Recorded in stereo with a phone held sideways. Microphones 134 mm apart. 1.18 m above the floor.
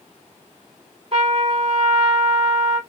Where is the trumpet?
50° right (ahead or behind), 1.0 m.